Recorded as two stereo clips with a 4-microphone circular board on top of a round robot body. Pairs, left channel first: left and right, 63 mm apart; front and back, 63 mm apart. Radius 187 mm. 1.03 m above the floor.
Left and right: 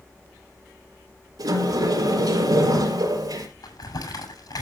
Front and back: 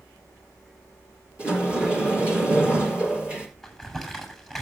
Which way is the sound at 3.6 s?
100° left.